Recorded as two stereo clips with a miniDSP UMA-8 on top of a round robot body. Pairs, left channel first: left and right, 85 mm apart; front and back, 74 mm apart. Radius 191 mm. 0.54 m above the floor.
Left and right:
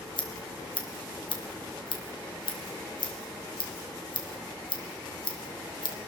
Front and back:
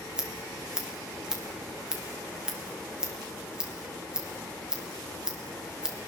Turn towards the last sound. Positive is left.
turn(degrees=100)